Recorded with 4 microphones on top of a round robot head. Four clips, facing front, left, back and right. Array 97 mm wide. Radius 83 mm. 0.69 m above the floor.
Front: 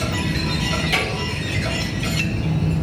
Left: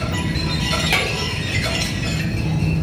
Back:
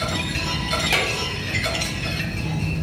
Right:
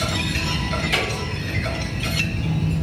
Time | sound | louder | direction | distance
0.9 | a drawer | left 2 dB, even | 115° left | 1.4 m